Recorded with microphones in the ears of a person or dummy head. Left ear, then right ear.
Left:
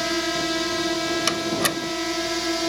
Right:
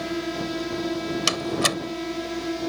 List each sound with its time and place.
0.0 s a drone: 35° left (ahead or behind)
1.3 s a door slam: 5° right (ahead or behind)